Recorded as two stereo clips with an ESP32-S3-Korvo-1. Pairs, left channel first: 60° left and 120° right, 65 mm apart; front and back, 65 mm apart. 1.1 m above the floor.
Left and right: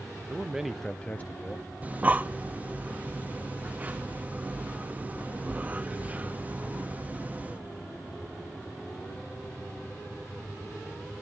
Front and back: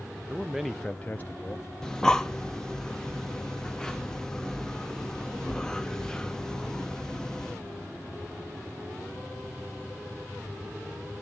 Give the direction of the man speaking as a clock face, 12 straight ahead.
5 o'clock.